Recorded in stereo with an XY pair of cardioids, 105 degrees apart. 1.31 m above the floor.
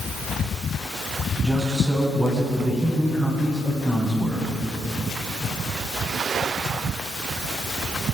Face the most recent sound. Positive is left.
turn(degrees=-10)